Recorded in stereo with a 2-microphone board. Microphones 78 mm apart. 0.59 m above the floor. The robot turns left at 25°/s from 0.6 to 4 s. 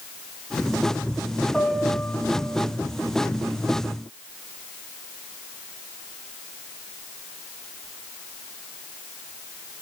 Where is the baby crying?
No baby crying in this recording.